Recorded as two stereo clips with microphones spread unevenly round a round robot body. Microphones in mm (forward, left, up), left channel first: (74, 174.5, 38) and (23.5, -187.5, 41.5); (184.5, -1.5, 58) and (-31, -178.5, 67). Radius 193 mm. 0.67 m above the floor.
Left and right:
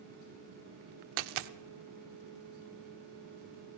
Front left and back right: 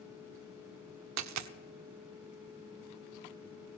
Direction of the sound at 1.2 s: 110° right.